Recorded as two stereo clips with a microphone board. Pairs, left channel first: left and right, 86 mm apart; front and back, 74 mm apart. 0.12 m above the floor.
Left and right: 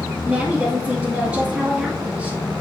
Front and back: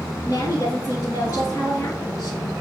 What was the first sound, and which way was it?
A woman speaking, 15° right.